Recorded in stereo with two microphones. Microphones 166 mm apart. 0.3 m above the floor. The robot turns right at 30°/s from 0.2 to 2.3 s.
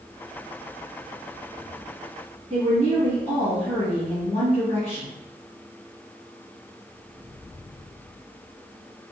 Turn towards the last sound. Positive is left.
turn(degrees=45)  # may be behind; listen again after turning